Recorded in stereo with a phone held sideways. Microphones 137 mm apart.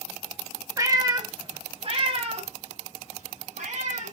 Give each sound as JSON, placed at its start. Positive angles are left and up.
{"t": 0.8, "sound": "a cat meowing", "side_deg": -25, "distance_m": 1.4}